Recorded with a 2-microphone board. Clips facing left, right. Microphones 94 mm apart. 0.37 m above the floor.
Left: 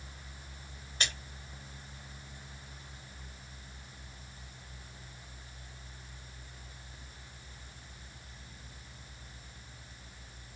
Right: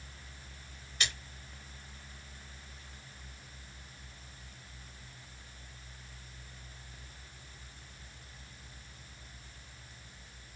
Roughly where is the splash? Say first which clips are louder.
Even; left.